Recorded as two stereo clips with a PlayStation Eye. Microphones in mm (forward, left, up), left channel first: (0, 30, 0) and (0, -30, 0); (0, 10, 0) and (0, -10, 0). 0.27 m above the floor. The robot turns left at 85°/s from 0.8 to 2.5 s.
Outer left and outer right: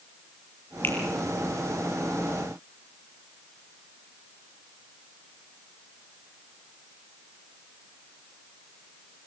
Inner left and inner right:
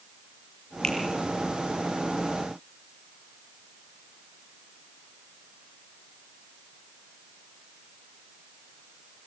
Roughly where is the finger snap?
Left.